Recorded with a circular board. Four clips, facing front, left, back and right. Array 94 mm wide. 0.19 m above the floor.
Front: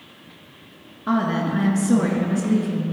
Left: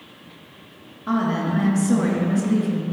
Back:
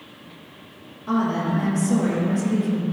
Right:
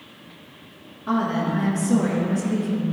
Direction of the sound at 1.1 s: 10° left.